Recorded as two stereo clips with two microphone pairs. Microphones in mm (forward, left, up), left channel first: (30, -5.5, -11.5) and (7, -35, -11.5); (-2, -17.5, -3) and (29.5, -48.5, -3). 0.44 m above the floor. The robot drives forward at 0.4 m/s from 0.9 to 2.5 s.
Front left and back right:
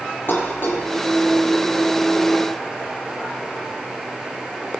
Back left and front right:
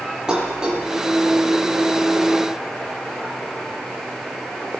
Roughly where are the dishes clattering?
Ahead left.